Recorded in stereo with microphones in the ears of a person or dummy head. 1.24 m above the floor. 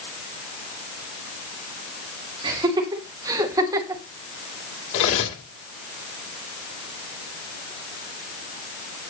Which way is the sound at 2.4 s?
25° right (ahead or behind).